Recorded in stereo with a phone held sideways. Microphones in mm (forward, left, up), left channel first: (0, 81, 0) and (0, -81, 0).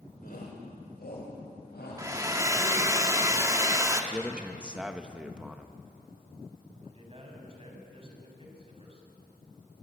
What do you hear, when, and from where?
0.2 s a shout: 70° left (ahead or behind), 3 m; by 3.0 s 80° left, 7 m
2.0 s a hair dryer: 20° right (ahead or behind), 1.6 m
4.1 s a man speaking: 5° right (ahead or behind), 1.0 m
6.8 s a man speaking: 35° right (ahead or behind), 5.5 m